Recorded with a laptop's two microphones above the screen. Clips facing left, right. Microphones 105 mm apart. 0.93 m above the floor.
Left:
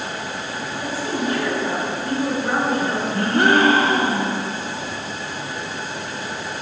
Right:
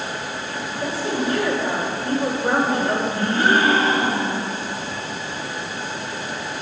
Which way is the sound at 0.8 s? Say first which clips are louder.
Right 1 dB; 30° right (ahead or behind).